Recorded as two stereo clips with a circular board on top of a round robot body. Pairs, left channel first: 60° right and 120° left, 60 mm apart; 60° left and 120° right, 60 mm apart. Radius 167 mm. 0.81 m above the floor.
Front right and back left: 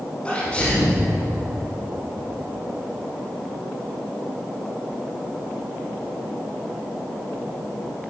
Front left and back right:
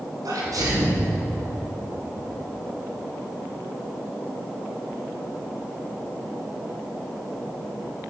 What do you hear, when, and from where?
0.2 s a sneeze: 130° right, 4.5 m